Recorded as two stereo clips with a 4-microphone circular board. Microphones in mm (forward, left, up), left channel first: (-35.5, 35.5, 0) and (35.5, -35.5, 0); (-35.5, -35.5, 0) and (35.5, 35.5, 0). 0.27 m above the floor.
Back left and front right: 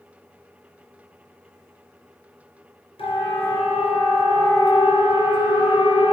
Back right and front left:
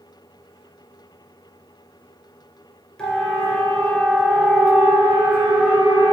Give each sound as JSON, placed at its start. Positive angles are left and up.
{"t": 3.0, "sound": "a siren", "azimuth_deg": 140, "distance_m": 5.0}